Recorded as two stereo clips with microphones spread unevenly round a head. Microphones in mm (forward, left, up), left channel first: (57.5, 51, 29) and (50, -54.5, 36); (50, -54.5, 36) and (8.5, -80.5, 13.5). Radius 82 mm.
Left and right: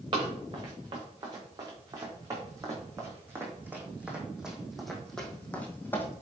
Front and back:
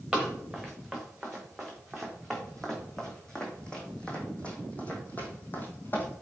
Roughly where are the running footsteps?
Ahead right.